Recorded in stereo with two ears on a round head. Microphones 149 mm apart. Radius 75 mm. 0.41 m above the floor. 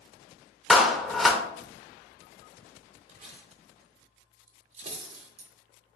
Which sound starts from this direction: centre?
A clap, at 0.7 s.